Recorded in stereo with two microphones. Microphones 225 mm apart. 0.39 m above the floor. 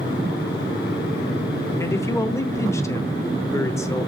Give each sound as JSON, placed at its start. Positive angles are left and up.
{"t": 1.8, "sound": "a man speaking", "side_deg": 15, "distance_m": 0.8}